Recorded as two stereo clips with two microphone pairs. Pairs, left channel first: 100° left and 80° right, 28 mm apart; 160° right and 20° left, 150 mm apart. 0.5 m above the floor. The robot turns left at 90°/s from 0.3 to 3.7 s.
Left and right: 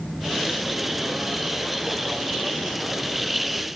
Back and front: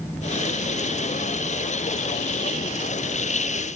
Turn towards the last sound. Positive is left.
No sound to turn to.